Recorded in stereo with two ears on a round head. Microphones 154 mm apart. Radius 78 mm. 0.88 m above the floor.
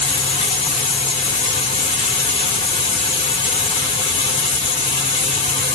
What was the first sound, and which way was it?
Running water, 35° left (ahead or behind).